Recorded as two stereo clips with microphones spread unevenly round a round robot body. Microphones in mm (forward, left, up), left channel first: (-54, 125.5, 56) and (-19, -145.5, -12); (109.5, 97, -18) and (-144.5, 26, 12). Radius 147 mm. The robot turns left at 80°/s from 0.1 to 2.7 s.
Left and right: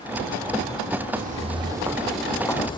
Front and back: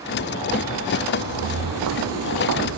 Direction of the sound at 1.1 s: 145° right.